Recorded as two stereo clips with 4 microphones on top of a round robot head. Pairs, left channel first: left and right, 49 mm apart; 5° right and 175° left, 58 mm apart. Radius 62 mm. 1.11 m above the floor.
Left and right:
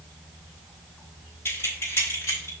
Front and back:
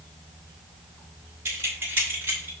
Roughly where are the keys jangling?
Behind left.